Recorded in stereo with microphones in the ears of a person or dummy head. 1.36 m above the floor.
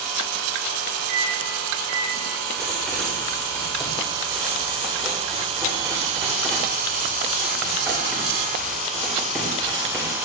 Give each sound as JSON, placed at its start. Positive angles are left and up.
{"t": 1.1, "sound": "a microwave", "side_deg": -55, "distance_m": 1.4}
{"t": 2.6, "sound": "writing", "side_deg": 0, "distance_m": 2.5}